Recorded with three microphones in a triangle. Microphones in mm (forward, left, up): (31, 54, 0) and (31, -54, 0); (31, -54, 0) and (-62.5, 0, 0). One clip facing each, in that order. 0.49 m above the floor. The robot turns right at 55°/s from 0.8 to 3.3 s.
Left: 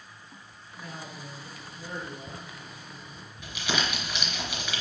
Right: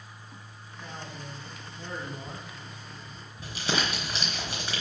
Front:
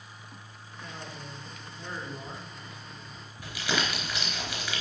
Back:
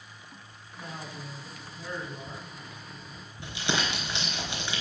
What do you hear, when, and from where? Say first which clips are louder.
0.8 s a man speaking: even, back 2 dB; 175° right, 4 m; by 2.5 s 85° right, 4 m
3.4 s crumpling: right 1 dB, even; 145° right, 4 m